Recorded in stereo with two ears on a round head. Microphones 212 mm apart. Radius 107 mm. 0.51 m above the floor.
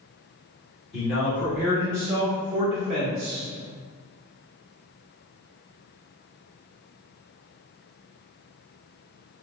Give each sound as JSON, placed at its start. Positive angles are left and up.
{"t": 0.9, "sound": "a man speaking", "side_deg": 25, "distance_m": 1.4}